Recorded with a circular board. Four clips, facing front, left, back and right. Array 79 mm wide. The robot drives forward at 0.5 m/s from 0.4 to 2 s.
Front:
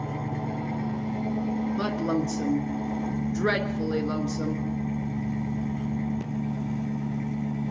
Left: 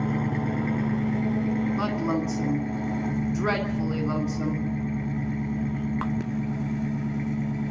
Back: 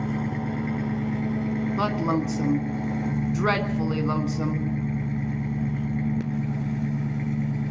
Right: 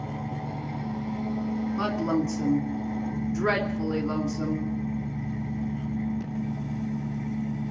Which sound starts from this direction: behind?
A woman speaking, at 1.8 s.